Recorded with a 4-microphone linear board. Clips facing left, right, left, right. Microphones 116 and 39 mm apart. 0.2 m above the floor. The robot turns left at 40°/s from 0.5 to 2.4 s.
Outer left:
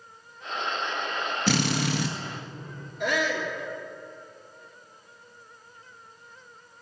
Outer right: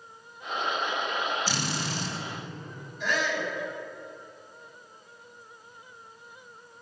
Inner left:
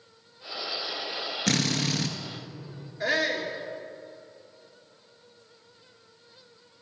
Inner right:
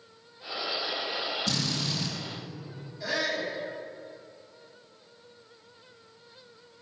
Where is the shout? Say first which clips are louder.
Outer left 2 dB, inner left 4 dB; 60° left (ahead or behind), 3 m.